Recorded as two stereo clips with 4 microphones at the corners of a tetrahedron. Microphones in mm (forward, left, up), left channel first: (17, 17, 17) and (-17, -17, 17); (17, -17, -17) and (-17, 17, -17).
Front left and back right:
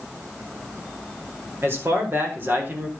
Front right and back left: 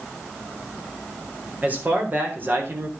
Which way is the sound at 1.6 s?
170° right.